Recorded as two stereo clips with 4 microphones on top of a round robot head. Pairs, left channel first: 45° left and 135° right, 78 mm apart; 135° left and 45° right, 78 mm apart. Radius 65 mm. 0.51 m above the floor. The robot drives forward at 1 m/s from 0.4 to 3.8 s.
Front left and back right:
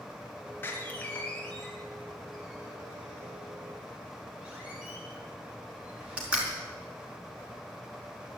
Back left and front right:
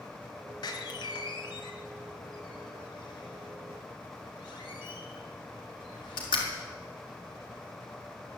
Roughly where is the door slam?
Left.